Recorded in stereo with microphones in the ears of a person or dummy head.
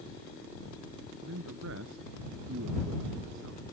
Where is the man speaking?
80° right.